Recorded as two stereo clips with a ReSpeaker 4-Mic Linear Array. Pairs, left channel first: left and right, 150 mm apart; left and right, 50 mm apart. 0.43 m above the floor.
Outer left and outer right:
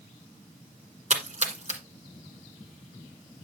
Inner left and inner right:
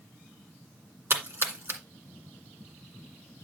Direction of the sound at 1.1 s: 50° right (ahead or behind).